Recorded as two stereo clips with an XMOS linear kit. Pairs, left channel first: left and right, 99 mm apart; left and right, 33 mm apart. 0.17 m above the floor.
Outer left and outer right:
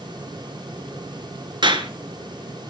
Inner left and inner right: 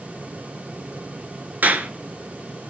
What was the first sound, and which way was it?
A clap, 55° right (ahead or behind).